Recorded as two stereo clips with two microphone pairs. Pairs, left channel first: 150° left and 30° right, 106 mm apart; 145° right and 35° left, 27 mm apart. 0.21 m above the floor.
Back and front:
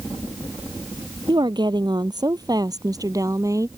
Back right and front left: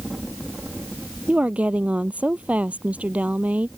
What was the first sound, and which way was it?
A woman speaking, 15° left.